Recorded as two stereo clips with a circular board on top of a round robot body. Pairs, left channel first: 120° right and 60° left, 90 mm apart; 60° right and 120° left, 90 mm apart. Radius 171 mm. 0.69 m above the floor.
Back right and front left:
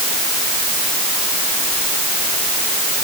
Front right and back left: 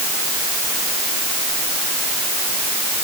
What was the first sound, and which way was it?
Only background noise.